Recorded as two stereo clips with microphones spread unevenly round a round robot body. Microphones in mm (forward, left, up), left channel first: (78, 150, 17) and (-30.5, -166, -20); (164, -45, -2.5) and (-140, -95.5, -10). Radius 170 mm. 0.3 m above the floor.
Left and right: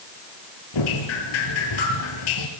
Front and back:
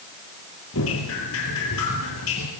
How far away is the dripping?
About 4.5 m.